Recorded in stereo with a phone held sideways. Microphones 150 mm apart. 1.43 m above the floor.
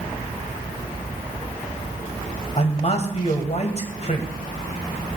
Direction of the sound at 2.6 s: 45° left (ahead or behind).